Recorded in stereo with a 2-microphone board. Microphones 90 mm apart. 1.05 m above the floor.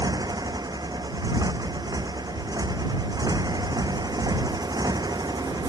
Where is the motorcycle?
45° right (ahead or behind).